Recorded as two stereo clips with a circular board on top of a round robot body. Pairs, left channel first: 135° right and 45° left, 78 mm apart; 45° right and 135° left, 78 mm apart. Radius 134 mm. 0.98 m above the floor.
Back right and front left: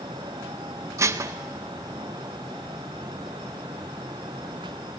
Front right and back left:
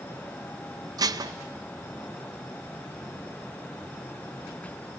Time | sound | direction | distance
1.0 | dishes clattering | 95° left | 0.5 m